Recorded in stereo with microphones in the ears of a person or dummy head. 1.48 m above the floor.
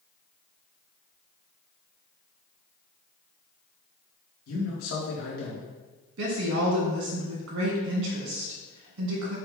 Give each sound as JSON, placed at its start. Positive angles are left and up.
{"t": 4.5, "sound": "a man speaking", "side_deg": 75, "distance_m": 1.5}
{"t": 6.2, "sound": "a woman speaking", "side_deg": -75, "distance_m": 1.5}